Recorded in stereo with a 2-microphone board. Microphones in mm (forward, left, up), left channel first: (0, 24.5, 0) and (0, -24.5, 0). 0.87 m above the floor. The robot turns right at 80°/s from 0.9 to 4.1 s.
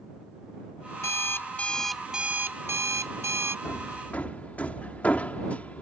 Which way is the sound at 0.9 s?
100° left.